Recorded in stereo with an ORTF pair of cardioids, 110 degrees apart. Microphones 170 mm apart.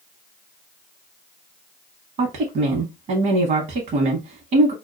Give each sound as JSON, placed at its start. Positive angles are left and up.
{"t": 2.2, "sound": "a woman speaking", "azimuth_deg": -60, "distance_m": 0.9}